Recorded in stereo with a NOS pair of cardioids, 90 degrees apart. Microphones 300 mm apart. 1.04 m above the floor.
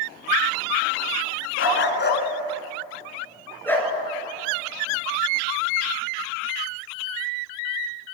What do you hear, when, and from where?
1.6 s a dog barking: 45° left, 3.5 m; by 3.9 s 5° left, 5 m